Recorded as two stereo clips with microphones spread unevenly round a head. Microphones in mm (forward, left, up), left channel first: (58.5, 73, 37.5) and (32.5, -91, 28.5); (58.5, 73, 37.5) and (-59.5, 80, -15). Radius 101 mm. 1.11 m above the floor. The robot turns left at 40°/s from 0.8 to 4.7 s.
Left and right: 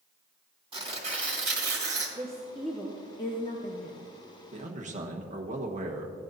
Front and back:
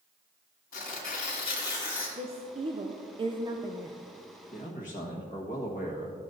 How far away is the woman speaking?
About 0.8 m.